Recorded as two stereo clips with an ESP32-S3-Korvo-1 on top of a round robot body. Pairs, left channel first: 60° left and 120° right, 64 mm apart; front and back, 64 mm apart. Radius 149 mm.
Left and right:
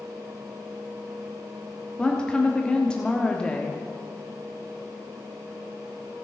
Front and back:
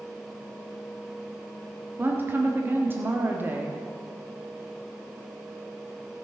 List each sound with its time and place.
2.0 s a woman speaking: 130° left, 1.4 m